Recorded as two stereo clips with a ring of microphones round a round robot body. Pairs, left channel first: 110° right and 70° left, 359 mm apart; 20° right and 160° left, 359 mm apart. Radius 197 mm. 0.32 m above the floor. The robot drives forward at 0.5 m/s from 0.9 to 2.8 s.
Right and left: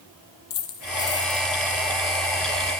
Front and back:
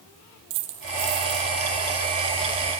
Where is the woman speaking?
No woman speaking in this recording.